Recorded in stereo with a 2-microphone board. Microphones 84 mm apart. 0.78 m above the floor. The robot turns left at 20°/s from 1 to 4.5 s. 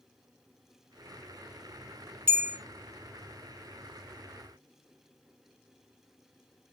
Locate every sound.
2.3 s a bell: 25° right (ahead or behind), 1.2 m